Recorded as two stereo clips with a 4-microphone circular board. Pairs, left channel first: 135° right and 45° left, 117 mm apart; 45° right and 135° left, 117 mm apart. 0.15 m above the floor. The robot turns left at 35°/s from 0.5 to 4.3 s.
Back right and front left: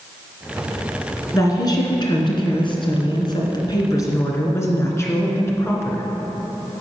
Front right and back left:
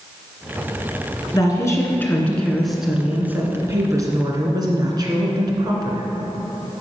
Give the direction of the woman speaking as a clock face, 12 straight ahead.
3 o'clock.